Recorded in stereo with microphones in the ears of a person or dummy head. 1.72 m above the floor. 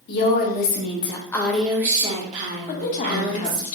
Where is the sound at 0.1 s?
55° left (ahead or behind), 0.9 m; by 3.7 s 55° right (ahead or behind), 1.3 m.